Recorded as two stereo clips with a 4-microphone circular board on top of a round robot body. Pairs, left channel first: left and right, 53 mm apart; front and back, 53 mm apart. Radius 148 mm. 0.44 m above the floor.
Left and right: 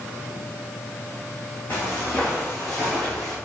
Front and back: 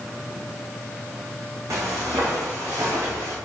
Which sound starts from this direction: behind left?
Footsteps, at 1.7 s.